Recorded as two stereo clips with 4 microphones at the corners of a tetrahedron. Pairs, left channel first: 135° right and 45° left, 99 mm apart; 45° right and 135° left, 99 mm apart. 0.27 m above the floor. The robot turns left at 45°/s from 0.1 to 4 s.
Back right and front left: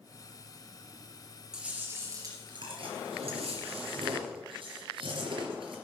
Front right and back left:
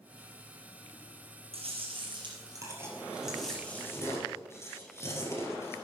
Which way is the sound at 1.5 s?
125° left.